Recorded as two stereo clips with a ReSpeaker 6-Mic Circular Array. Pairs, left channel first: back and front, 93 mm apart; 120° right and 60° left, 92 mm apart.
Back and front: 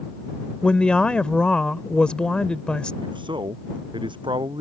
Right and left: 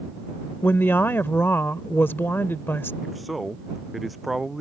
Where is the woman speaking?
115° right.